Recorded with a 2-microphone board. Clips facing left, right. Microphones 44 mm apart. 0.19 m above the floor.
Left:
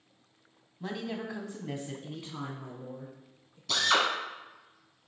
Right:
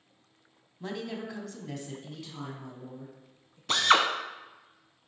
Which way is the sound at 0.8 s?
5° left (ahead or behind).